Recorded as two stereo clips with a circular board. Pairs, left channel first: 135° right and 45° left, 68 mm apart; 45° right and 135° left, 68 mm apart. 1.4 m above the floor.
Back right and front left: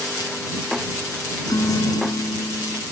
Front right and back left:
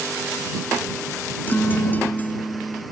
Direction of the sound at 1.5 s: 105° right.